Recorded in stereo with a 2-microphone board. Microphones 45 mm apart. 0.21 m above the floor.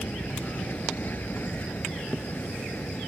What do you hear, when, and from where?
0.0 s an aircraft: 45° left (ahead or behind); by 3.1 s 40° left (ahead or behind)